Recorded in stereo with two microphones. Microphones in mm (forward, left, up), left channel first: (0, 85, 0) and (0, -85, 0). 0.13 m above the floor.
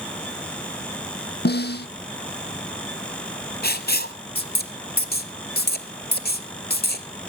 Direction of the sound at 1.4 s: 80° left.